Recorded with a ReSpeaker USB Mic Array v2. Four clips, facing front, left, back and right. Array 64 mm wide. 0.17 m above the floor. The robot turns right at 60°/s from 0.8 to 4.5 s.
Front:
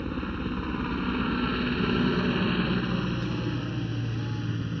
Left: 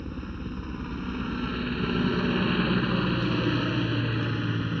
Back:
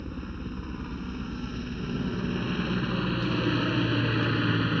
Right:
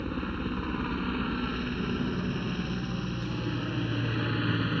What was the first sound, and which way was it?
A helicopter, 45° right.